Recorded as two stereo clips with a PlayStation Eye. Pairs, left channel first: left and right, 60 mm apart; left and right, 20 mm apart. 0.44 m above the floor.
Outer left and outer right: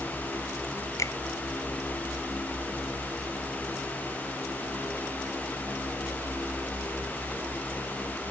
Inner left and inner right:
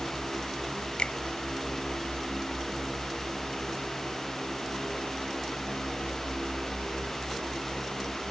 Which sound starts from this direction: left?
A finger snap, at 1.0 s.